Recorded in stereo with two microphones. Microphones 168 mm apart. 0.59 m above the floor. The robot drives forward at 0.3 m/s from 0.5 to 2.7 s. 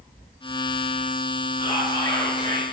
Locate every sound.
1.6 s whispering: 25° left (ahead or behind), 1.0 m; by 2.6 s 20° left (ahead or behind), 1.3 m